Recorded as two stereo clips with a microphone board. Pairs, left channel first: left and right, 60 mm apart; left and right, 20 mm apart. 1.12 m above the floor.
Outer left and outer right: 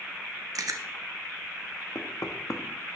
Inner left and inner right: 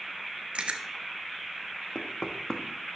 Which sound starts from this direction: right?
Chewing, at 0.6 s.